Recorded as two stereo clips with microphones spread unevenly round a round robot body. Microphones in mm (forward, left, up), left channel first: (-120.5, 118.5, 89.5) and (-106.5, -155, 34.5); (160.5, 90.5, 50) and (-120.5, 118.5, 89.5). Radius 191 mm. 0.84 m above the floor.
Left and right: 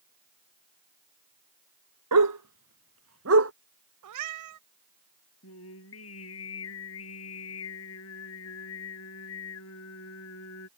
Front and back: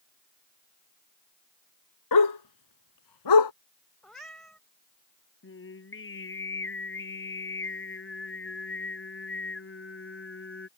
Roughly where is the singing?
Ahead left.